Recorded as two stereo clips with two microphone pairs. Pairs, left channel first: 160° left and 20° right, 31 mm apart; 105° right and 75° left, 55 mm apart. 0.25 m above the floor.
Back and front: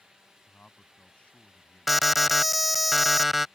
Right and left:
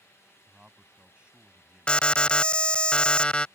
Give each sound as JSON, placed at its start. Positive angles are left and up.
{"t": 0.5, "sound": "a man speaking", "azimuth_deg": 135}
{"t": 1.9, "sound": "an alarm", "azimuth_deg": -95}